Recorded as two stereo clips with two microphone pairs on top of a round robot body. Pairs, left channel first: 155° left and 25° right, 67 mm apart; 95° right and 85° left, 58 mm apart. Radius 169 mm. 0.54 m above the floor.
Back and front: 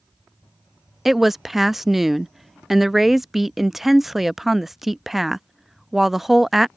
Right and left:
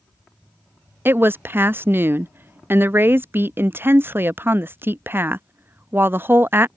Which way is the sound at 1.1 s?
70° left.